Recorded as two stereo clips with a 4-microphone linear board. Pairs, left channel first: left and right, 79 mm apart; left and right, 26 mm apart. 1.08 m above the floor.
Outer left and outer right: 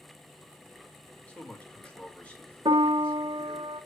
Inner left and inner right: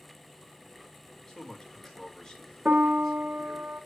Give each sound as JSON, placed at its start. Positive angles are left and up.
{"t": 1.3, "sound": "a man speaking", "side_deg": 20, "distance_m": 2.5}
{"t": 2.6, "sound": "a piano", "side_deg": -80, "distance_m": 0.8}